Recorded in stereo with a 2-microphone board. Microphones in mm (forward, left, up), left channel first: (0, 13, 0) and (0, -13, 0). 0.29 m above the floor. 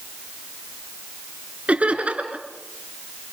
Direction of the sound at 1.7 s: 55° right (ahead or behind).